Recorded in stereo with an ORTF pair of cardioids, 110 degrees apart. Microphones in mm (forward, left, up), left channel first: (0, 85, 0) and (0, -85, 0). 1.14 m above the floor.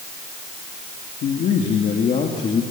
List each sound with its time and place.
1.2 s a man speaking: 60° left, 2.5 m; by 2.6 s 35° left, 2.5 m